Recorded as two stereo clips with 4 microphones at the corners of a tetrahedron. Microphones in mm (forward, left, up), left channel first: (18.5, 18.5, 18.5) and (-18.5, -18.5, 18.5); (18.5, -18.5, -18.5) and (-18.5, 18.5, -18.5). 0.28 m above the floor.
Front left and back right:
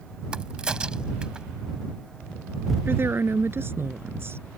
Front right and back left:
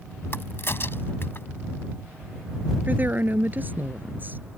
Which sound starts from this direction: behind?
A woman speaking, at 2.9 s.